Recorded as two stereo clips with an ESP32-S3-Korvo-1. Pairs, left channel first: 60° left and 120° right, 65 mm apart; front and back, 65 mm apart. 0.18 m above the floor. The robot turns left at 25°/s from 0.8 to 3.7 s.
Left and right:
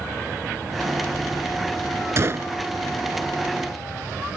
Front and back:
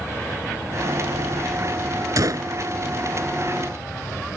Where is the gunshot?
160° right; by 2.5 s 170° right.